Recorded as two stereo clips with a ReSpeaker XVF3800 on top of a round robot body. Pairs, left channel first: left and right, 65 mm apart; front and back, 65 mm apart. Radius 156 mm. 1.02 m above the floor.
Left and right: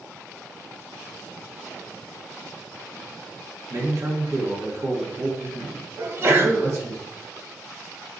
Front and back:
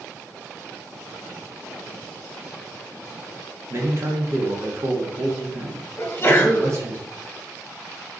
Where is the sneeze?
50° right, 1.0 m.